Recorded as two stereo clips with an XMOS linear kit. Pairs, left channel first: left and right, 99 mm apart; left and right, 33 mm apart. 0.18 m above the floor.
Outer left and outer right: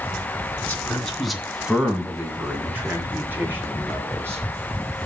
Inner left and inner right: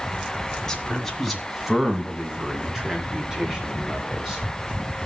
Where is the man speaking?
10° left (ahead or behind), 1.7 m; by 4.4 s 20° right (ahead or behind), 5 m.